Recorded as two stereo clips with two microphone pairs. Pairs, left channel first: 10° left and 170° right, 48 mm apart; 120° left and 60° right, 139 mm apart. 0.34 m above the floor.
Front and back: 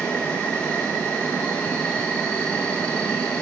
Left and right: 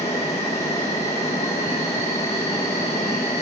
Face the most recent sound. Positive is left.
turn(degrees=80)